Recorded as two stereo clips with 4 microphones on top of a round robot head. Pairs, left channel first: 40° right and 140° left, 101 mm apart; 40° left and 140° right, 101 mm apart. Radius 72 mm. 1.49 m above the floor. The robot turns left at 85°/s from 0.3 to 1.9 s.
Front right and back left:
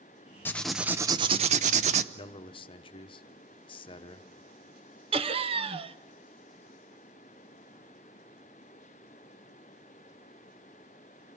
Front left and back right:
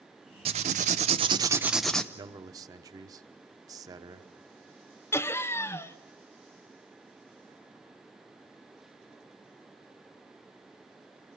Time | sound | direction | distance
0.5 | writing | 110° right | 0.6 m
2.1 | a man speaking | 80° right | 1.0 m
5.1 | laughter | 110° left | 1.1 m